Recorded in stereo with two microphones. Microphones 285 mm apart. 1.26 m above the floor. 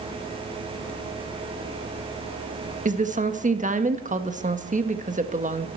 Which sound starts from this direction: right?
A woman speaking, at 2.9 s.